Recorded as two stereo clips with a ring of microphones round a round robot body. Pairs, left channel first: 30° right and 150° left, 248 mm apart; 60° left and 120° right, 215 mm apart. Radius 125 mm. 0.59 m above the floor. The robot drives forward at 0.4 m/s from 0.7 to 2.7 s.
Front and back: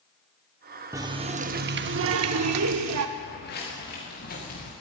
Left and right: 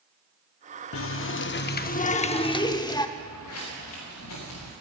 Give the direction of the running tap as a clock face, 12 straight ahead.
10 o'clock.